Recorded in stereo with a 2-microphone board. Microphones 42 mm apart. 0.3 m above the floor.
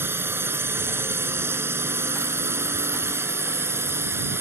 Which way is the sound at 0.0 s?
65° right (ahead or behind).